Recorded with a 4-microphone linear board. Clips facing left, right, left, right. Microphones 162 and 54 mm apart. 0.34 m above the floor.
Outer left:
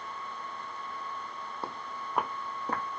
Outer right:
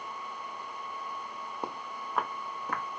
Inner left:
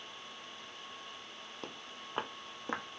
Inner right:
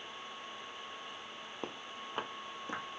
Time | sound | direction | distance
1.6 | footsteps | 15° right (ahead or behind) | 0.6 m